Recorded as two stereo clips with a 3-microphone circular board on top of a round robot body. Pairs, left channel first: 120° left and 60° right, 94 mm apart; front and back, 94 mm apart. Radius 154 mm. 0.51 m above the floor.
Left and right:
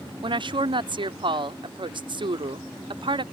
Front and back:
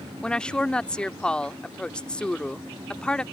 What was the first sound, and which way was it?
A woman speaking, 80° right.